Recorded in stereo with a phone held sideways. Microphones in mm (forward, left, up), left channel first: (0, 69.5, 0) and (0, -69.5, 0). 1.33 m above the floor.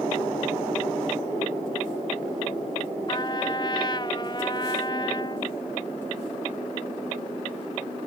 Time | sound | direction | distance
3.1 | a trumpet | 35° left (ahead or behind) | ?